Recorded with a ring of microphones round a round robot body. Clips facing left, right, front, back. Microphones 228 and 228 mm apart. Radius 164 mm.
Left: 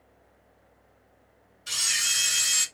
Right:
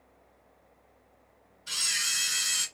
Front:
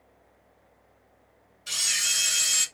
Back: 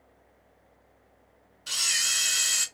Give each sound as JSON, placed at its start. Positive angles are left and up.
{"t": 1.7, "sound": "a camera shutter", "azimuth_deg": 100, "distance_m": 1.3}